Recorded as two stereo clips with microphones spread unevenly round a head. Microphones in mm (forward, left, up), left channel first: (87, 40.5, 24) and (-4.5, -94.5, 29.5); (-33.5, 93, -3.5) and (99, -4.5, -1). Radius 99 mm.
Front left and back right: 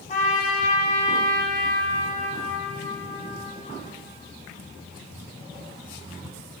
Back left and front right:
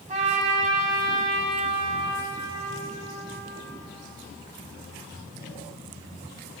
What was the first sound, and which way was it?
A trumpet, 10° left.